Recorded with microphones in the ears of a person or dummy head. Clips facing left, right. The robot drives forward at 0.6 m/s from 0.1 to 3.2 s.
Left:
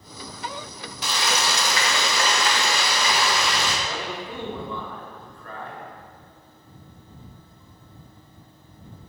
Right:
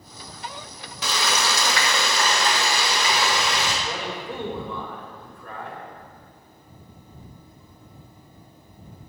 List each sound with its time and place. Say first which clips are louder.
1.0 s frying: right 1 dB; 60° right (ahead or behind), 0.7 m; by 3.7 s 25° right (ahead or behind), 1.2 m
3.8 s a man speaking: right 1 dB; 20° right (ahead or behind), 1.0 m